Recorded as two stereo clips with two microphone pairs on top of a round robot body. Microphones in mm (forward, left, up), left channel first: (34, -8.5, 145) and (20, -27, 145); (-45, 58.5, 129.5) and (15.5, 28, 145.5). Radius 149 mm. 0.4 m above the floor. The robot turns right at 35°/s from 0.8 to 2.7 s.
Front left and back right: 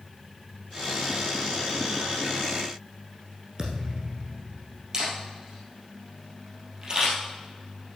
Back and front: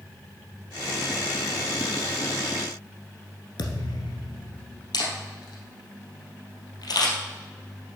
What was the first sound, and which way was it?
A thud, 170° left.